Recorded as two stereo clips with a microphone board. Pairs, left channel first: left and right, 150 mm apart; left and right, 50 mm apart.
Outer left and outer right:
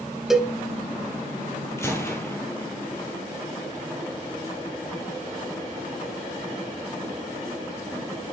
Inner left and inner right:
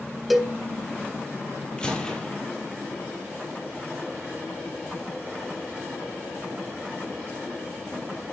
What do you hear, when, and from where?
0.3 s a cowbell: 5° right (ahead or behind), 1.4 m
1.8 s a gunshot: 20° left (ahead or behind), 2 m